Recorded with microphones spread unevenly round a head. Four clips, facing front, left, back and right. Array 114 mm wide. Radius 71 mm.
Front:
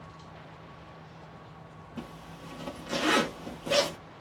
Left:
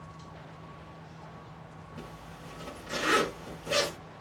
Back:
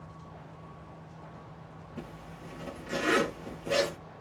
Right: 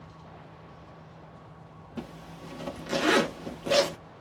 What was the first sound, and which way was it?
A zipper, 100° right.